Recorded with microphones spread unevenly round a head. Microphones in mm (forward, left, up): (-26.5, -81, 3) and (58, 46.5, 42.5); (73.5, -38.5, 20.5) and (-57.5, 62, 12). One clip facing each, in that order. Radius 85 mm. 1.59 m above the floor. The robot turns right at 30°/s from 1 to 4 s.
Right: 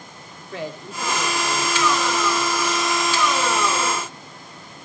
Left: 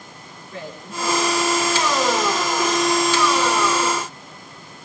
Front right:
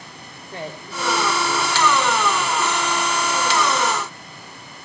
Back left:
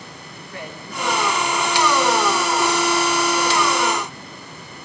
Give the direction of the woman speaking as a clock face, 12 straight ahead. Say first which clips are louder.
Right 2 dB, front right 2 dB; 3 o'clock.